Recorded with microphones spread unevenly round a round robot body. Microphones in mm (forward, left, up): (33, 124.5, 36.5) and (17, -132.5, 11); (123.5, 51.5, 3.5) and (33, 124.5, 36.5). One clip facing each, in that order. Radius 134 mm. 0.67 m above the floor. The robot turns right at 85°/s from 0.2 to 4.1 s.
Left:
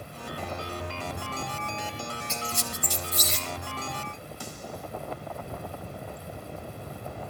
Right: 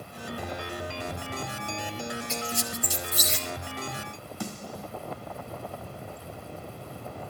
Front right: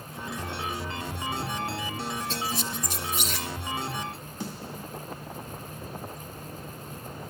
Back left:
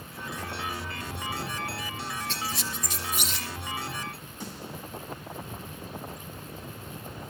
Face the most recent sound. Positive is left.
turn(degrees=-75)